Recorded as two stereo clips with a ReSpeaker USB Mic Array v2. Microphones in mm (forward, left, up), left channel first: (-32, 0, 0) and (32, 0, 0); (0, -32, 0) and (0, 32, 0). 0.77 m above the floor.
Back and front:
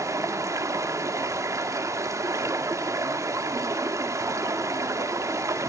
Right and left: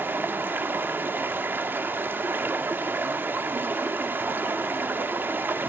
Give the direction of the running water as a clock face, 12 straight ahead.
11 o'clock.